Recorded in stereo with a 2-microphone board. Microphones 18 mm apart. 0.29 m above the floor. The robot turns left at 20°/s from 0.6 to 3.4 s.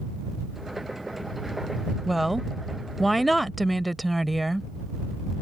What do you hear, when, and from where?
2.1 s a woman speaking: 5° right (ahead or behind); by 4.7 s 5° left (ahead or behind)